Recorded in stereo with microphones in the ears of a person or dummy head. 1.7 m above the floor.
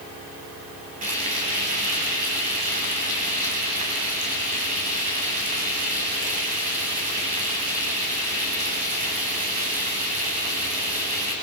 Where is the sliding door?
No sliding door in this recording.